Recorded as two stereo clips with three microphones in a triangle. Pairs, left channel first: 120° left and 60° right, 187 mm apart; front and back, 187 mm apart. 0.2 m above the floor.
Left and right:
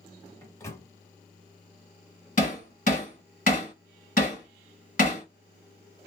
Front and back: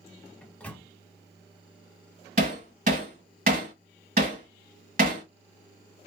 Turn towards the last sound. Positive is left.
turn(degrees=155)